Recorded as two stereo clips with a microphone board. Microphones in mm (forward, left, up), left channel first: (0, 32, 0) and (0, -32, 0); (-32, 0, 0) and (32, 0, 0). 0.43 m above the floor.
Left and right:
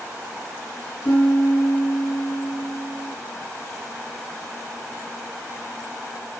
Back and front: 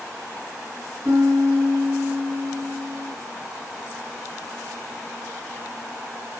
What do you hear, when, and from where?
1.1 s a piano: 40° left, 5.5 m